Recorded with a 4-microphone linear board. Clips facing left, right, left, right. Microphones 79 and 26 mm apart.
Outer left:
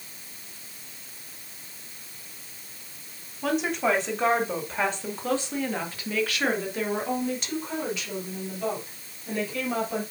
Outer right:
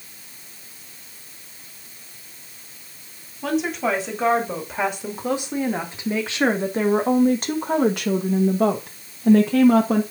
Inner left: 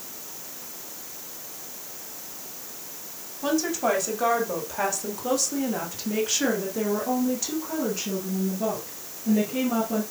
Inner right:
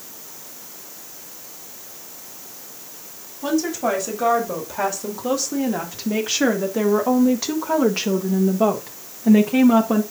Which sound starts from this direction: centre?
A woman speaking, at 3.4 s.